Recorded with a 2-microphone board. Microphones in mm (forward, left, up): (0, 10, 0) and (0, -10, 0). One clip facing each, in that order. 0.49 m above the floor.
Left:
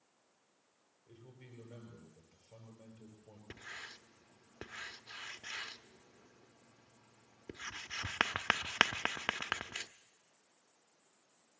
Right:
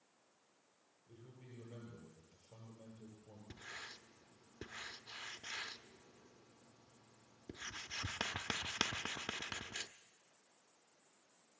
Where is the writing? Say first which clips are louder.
Left 3 dB; 50° left (ahead or behind), 0.6 m.